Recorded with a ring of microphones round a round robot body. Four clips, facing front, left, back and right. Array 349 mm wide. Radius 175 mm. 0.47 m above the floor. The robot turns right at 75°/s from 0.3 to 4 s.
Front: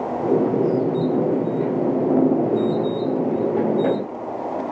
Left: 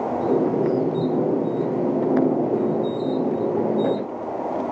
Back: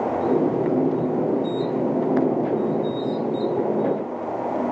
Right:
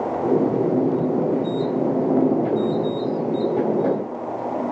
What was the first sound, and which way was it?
Only background noise.